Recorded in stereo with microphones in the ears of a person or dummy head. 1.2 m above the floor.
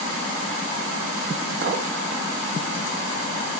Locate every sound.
1.6 s a clink: 65° right (ahead or behind), 0.8 m